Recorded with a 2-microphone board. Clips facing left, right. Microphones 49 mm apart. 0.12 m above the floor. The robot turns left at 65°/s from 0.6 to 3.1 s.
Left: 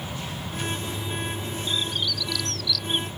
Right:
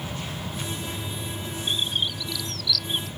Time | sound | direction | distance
1.7 | a bird | 55° right (ahead or behind) | ?